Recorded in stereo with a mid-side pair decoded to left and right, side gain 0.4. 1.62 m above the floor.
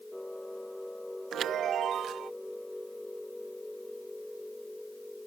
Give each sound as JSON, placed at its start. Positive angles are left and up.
{"t": 0.0, "sound": "a machine running", "azimuth_deg": 10}
{"t": 1.3, "sound": "a chime", "azimuth_deg": -70}